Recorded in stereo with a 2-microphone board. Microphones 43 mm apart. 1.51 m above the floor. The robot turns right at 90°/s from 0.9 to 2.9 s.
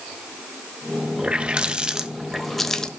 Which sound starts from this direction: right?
A running tap, at 1.2 s.